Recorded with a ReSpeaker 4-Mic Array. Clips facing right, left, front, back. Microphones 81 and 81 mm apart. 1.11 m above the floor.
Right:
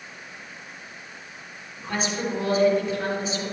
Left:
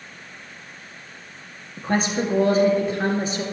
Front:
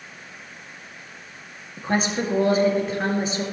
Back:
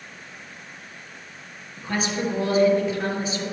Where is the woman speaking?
45° left, 2 m.